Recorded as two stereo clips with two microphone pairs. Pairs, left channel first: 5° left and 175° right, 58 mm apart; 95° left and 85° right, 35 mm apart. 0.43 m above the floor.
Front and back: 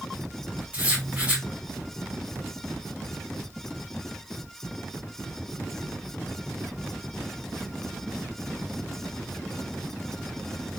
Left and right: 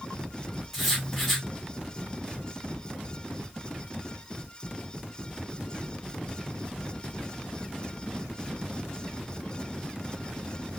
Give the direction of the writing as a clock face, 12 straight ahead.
6 o'clock.